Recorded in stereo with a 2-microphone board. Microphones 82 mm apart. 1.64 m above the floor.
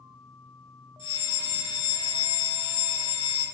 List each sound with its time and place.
1.0 s a fire alarm: 80° left, 7.5 m